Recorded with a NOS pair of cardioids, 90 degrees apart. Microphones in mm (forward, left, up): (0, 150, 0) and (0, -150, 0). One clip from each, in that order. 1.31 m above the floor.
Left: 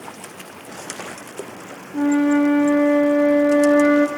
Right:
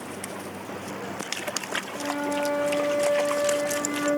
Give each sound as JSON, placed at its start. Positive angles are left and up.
{"t": 1.9, "sound": "a flute", "azimuth_deg": 50, "distance_m": 0.6}